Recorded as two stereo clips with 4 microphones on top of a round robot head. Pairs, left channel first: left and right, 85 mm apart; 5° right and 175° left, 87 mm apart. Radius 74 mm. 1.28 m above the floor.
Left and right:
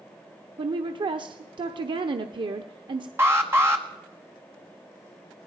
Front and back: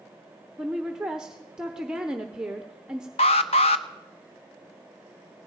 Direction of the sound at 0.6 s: 105° right.